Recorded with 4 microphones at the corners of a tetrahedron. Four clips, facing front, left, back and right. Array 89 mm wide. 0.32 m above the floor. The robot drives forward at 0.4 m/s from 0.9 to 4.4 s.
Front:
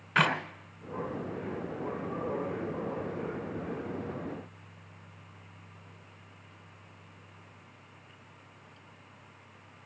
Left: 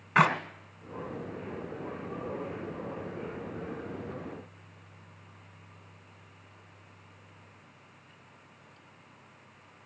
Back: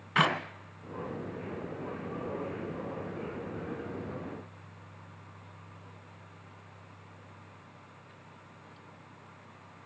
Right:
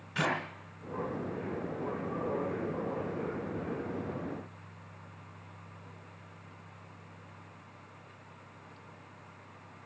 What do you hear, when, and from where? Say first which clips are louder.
0.1 s a clap: left 8 dB, even; 90° left, 2 m